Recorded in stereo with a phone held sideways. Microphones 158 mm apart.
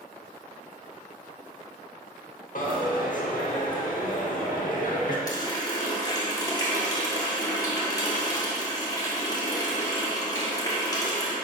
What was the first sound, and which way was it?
A dropped coin, 65° left (ahead or behind).